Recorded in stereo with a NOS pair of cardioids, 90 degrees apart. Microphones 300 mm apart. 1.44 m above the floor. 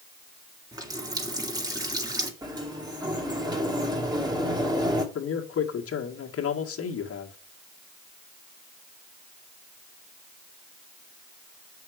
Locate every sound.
0.7 s a running tap: 10° right, 2 m
2.4 s a sliding door: 15° right, 2.5 m
5.2 s a man speaking: 50° left, 1.8 m